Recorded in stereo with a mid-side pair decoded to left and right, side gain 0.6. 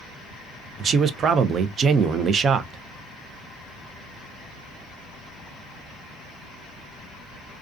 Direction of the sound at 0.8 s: 40° right.